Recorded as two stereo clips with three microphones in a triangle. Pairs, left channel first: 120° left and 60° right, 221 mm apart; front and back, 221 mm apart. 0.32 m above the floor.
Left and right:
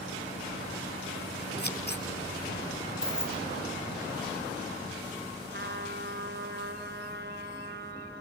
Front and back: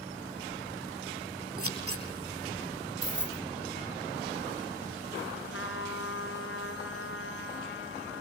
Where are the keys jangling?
145° right, 1.9 m.